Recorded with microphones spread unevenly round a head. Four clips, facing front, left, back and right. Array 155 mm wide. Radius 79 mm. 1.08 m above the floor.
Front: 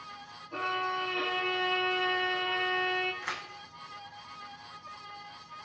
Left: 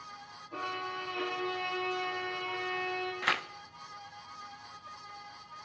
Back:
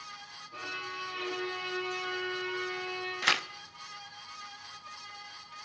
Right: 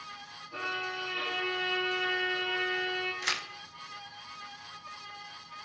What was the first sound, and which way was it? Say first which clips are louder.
A violin: right 1 dB, front 9 dB; 15° left.